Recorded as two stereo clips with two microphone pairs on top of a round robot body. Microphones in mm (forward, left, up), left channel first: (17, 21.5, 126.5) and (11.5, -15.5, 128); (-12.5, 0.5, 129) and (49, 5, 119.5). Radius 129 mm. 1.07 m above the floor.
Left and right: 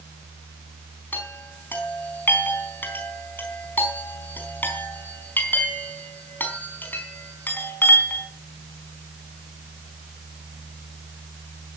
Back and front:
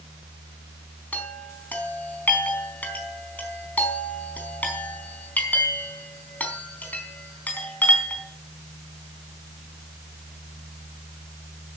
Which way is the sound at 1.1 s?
120° left.